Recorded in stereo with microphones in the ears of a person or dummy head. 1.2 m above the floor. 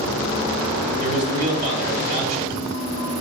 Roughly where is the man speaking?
Right.